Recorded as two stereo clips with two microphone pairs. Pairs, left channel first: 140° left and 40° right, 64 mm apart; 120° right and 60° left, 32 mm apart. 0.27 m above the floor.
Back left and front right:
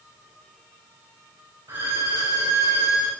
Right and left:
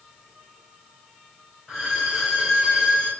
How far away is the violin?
About 3 m.